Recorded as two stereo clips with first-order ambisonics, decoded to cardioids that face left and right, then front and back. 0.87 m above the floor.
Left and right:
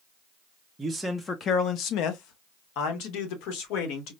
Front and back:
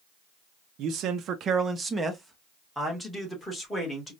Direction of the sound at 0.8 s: 165° right.